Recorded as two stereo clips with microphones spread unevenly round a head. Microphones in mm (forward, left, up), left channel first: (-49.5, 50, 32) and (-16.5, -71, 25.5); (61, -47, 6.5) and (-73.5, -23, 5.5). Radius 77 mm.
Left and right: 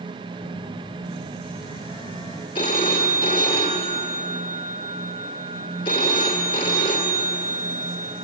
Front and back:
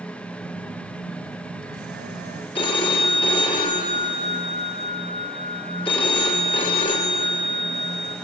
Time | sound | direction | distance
0.4 | a phone buzzing | 160° left | 2.5 m
2.5 | a phone ringing | 45° left | 2.5 m